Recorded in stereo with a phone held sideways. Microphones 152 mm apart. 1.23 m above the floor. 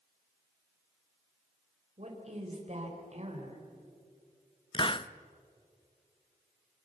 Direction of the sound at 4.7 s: 35° left (ahead or behind).